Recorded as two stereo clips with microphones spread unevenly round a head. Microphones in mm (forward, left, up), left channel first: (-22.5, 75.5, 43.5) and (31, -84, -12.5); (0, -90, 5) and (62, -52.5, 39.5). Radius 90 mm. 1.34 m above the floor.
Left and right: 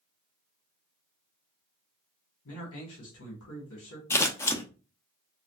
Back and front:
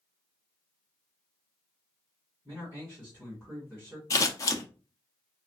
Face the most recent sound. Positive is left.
turn(degrees=-170)